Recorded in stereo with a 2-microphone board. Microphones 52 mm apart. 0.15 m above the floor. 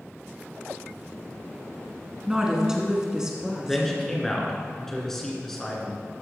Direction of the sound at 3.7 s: 10° left (ahead or behind).